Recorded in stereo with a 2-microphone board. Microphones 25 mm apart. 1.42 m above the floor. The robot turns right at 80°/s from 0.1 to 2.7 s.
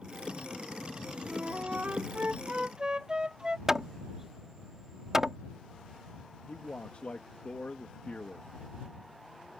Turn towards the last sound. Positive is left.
turn(degrees=65)  # may be behind; listen again after turning